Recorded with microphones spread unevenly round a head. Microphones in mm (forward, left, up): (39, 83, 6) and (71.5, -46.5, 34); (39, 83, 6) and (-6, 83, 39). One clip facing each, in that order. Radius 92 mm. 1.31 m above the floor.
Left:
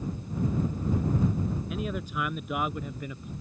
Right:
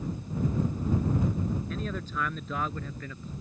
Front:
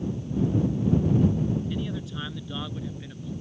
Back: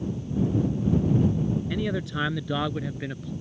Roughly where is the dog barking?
No dog barking in this recording.